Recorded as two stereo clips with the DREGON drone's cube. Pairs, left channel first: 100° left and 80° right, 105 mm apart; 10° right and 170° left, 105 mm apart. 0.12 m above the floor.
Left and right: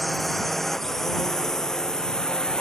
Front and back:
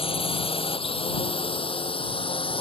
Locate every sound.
0.0 s a drone: 10° left; by 2.6 s 20° left